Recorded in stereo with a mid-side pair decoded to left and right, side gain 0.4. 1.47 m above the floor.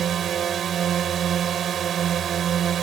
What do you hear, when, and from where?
0.0 s a drone: 65° right